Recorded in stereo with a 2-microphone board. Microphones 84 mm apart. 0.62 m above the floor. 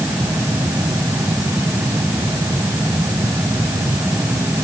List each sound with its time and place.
Only background noise.